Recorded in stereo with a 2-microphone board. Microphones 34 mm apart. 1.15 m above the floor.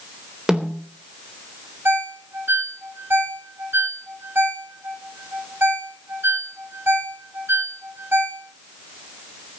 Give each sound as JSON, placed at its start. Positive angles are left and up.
{"t": 0.5, "sound": "a snare drum", "side_deg": -25, "distance_m": 3.5}
{"t": 1.9, "sound": "a ringtone", "side_deg": -75, "distance_m": 2.5}